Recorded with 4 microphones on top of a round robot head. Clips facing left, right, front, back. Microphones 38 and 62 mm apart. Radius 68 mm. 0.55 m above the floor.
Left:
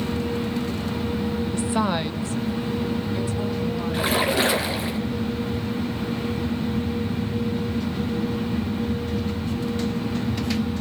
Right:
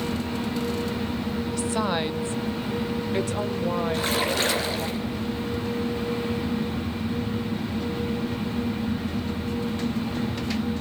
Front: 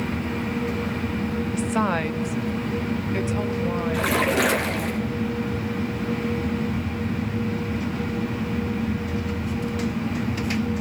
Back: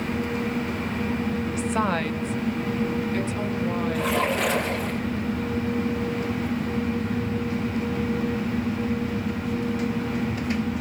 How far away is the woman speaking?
About 0.8 m.